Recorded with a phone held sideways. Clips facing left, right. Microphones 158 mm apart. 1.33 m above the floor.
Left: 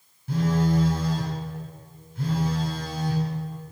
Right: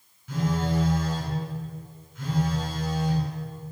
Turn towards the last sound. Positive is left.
turn(degrees=35)  # may be behind; listen again after turning